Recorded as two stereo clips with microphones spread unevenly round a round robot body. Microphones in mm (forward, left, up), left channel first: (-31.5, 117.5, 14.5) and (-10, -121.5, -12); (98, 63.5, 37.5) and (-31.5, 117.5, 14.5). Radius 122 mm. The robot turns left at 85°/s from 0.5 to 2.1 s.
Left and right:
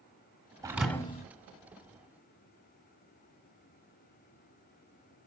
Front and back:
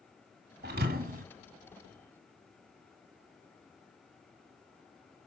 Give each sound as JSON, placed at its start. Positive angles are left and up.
{"t": 0.6, "sound": "a thud", "azimuth_deg": -160, "distance_m": 1.3}